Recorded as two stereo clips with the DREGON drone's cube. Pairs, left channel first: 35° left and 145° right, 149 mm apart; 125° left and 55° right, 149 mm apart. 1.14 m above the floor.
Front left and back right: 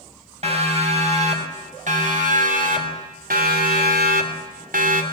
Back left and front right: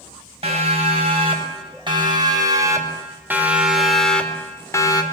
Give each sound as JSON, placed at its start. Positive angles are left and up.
{"t": 0.4, "sound": "a siren", "azimuth_deg": -100, "distance_m": 6.5}